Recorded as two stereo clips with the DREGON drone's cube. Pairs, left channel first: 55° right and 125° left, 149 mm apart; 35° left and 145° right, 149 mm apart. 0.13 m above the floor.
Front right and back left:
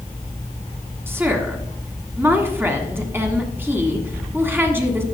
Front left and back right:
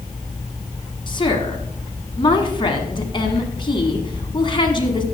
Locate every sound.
1.1 s a woman speaking: 60° left, 1.5 m